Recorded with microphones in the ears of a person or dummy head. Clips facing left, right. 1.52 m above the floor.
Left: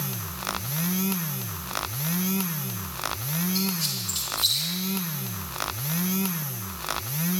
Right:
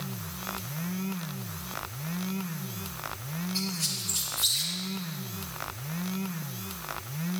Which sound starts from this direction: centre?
A squeak, at 3.5 s.